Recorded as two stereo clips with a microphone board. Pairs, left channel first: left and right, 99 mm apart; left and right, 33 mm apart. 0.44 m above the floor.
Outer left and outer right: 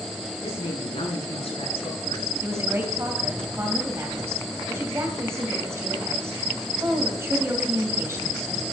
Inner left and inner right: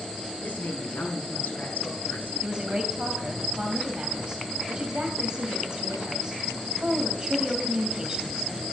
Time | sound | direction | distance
0.4 | a woman speaking | 75° left (ahead or behind) | 5.5 m
2.4 | a woman speaking | 30° right (ahead or behind) | 2.5 m